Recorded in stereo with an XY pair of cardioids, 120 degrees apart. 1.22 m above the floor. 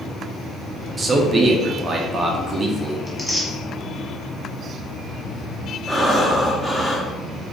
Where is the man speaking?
30° right, 0.6 m.